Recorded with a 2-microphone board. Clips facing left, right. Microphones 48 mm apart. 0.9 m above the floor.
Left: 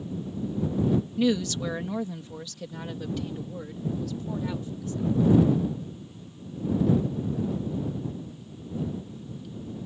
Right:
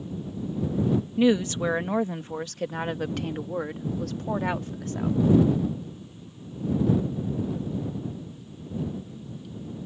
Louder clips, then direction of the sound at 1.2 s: Right 3 dB; 25° right (ahead or behind).